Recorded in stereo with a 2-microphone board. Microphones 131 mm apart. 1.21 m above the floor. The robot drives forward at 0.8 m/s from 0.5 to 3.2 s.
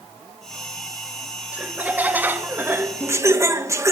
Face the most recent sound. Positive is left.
turn(degrees=-25)  # may be behind; listen again after turning